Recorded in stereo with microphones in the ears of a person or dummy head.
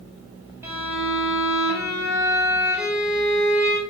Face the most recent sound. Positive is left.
turn(degrees=-5)  # may be behind; listen again after turning